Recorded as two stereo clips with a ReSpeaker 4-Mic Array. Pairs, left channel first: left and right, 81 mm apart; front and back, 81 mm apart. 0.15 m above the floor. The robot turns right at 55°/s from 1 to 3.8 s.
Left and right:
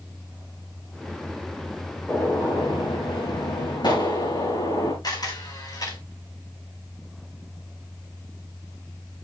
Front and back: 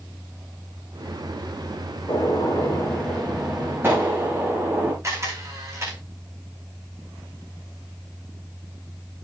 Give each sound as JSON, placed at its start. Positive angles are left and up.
{"t": 2.1, "sound": "a gunshot", "azimuth_deg": 25, "distance_m": 7.5}
{"t": 5.0, "sound": "a camera shutter", "azimuth_deg": 125, "distance_m": 6.5}